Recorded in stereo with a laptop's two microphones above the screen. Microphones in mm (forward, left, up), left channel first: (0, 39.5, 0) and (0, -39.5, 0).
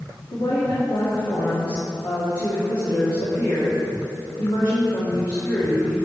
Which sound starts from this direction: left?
A woman speaking, at 0.3 s.